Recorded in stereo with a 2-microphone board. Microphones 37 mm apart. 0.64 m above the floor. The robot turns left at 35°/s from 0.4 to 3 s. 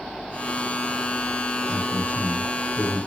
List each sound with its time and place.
1.7 s a man speaking: 130° right, 6 m; by 3.0 s 175° right, 6 m